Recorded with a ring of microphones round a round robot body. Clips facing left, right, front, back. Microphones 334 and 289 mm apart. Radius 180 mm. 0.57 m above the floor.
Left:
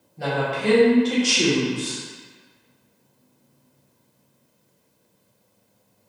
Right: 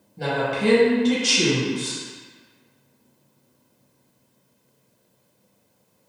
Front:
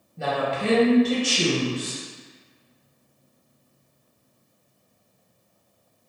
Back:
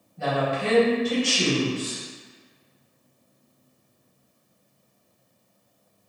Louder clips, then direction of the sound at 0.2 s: Right 2 dB, even; 50° right.